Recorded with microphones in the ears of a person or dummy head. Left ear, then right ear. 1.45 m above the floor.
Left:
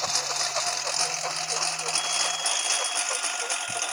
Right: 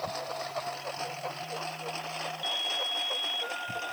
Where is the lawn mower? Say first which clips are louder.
Left 8 dB; 60° left (ahead or behind); by 3.9 s 55° left (ahead or behind).